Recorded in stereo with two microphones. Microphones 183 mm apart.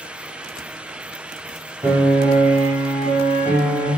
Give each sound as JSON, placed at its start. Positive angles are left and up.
{"t": 1.8, "sound": "a piano", "side_deg": -15, "distance_m": 0.9}